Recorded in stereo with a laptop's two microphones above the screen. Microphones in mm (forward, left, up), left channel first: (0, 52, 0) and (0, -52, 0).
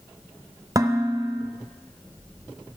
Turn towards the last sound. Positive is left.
turn(degrees=-30)  # may be behind; listen again after turning